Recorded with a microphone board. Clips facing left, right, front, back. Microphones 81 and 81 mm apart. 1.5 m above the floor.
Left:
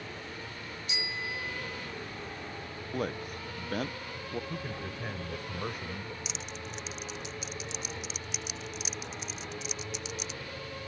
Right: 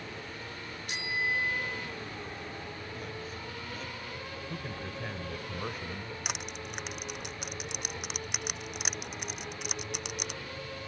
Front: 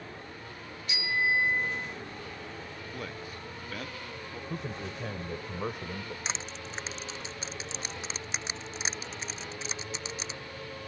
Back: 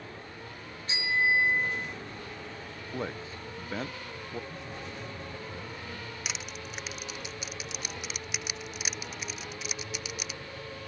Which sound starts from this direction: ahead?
A man speaking, at 4.5 s.